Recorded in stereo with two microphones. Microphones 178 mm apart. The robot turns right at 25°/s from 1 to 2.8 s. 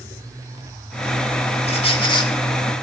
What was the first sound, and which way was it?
A squeak, 35° left (ahead or behind).